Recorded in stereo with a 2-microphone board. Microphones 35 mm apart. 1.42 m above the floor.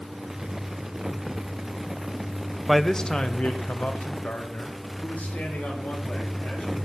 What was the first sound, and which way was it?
A man speaking, 5° right (ahead or behind).